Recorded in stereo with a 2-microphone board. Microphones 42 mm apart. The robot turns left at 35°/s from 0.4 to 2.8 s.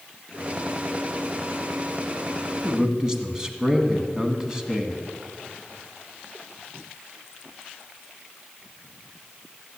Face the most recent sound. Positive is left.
turn(degrees=-15)  # may be behind; listen again after turning